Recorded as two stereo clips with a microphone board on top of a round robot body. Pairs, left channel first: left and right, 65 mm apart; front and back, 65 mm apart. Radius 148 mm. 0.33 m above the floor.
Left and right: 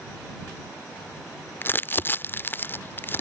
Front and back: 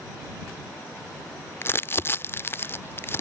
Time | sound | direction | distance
1.6 | crumpling | 40° left | ?